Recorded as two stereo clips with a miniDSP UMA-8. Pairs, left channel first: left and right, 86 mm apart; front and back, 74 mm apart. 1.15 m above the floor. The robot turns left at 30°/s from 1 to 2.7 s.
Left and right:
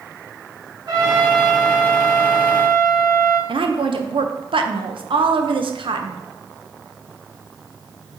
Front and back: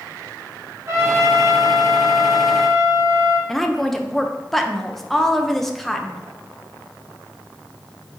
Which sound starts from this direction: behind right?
A trumpet, at 0.9 s.